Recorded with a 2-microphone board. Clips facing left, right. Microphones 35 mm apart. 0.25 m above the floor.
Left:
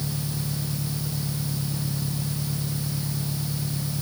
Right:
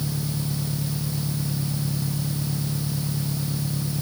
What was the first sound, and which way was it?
An engine running, 20° right (ahead or behind).